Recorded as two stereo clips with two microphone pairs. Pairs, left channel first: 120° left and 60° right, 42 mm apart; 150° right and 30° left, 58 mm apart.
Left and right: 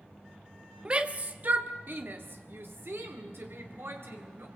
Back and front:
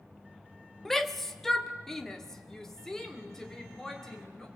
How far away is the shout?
About 1.0 m.